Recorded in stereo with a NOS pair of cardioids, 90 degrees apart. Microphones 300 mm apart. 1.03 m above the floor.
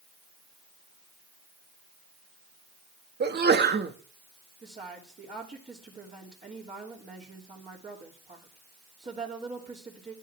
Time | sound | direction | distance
3.2 | a sneeze | 35° right | 1.7 m
4.6 | a woman speaking | 25° right | 3 m